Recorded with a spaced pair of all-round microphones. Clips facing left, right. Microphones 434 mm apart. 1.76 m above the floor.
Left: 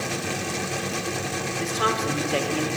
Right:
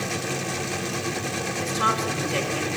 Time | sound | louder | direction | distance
1.6 | a woman speaking | left 3 dB | 75° left (ahead or behind) | 4.5 m